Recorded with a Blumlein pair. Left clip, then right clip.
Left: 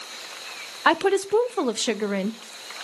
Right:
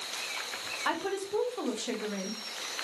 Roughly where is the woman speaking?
Ahead left.